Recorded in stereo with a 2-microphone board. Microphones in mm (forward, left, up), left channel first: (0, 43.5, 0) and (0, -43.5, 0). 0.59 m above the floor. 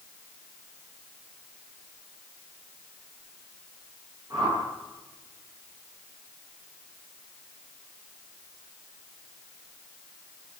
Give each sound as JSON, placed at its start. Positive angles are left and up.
{"t": 4.3, "sound": "a whoosh", "side_deg": -50, "distance_m": 10.0}